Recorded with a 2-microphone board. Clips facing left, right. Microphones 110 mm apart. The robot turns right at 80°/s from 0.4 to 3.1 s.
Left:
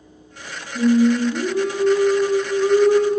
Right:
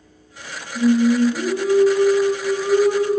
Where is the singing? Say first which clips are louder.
Even; 5° left (ahead or behind), 1.1 m; by 3.2 s 5° right (ahead or behind), 1.1 m.